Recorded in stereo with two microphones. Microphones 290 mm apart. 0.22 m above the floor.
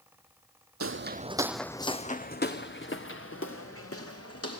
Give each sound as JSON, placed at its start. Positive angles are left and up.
{"t": 0.8, "sound": "footsteps", "side_deg": -55, "distance_m": 0.6}